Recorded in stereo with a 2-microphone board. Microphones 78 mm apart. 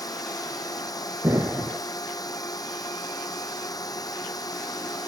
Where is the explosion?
40° right (ahead or behind).